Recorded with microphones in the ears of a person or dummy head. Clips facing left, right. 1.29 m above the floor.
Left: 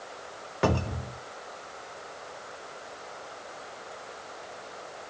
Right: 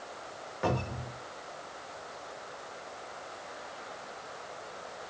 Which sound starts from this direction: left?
A cupboard door, at 0.6 s.